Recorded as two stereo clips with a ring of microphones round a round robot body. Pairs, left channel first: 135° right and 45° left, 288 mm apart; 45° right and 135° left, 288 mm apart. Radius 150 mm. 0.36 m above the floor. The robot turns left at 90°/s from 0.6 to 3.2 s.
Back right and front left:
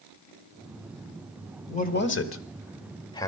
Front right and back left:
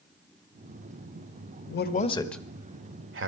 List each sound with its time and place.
1.7 s a man speaking: 70° right, 1.3 m; by 3.3 s 150° left, 1.3 m